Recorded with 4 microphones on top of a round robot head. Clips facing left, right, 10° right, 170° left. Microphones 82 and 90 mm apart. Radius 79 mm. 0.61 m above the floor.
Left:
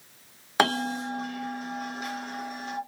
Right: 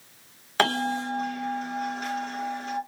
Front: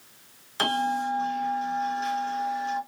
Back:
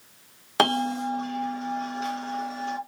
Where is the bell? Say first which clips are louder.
Even, back 2 dB; 165° left, 2 m.